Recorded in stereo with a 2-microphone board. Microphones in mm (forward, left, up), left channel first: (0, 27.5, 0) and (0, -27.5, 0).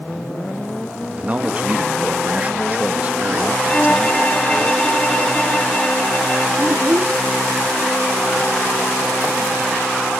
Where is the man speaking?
25° right (ahead or behind).